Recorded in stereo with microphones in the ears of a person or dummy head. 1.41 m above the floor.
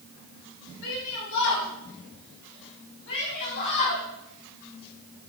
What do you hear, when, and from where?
0.8 s a shout: 85° left, 6.5 m; by 4.0 s 55° left (ahead or behind), 8 m